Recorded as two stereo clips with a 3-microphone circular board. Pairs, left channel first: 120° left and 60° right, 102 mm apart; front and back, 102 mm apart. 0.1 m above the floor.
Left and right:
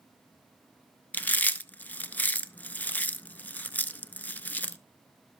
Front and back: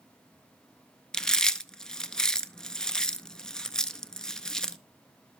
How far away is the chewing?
About 0.5 m.